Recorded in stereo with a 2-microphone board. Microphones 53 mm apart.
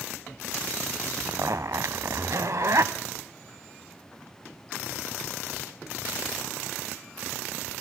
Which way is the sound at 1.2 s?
70° right (ahead or behind).